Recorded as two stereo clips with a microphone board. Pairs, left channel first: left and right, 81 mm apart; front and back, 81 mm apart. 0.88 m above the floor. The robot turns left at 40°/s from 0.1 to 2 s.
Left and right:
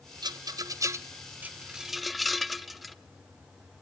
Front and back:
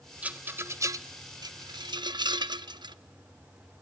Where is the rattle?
110° right, 0.5 m; by 3.0 s straight behind, 0.5 m.